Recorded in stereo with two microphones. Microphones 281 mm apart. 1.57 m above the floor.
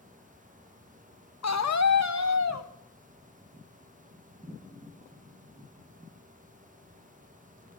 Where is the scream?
70° left (ahead or behind), 0.8 m.